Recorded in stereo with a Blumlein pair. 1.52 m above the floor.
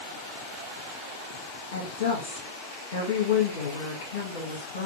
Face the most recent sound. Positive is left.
turn(degrees=55)